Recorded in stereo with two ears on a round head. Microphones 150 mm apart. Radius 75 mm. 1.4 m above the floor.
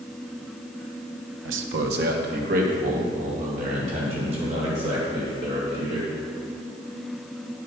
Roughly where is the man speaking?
Right.